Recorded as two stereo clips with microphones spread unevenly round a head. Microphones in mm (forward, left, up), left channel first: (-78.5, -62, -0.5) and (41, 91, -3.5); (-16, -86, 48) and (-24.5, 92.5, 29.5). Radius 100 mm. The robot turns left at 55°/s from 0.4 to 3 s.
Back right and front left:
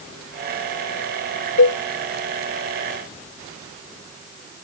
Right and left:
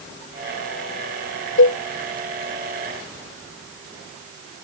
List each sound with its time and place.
1.6 s a cowbell: 100° right; by 1.8 s 110° right